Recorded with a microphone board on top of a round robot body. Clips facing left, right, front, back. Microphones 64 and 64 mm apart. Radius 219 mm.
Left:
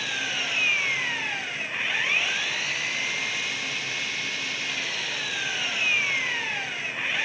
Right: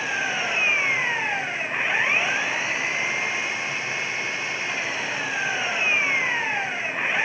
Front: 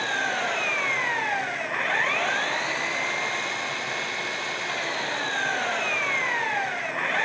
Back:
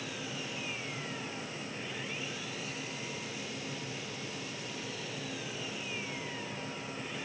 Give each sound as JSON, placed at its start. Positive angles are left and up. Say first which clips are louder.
{"t": 0.0, "sound": "an engine running", "louder": "right 5 dB, front 15 dB", "azimuth_deg": -25}